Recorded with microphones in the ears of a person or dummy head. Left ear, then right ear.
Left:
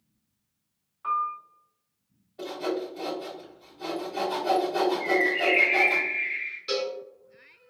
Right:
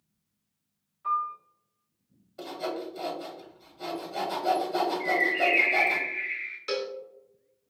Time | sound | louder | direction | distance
1.0 | a piano | left 1 dB | 35° left (ahead or behind) | 1.1 m
2.4 | sawing | left 3 dB | 60° right (ahead or behind) | 1.5 m
5.0 | a bird | right 1 dB | 35° right (ahead or behind) | 0.9 m
6.7 | a cowbell | left 3 dB | 30° right (ahead or behind) | 0.7 m